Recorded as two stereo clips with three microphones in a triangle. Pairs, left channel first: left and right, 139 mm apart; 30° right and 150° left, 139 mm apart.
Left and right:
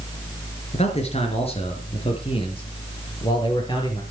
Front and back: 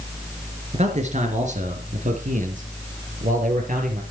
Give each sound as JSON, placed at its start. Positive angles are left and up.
{"t": 0.7, "sound": "a man speaking", "azimuth_deg": 120, "distance_m": 3.5}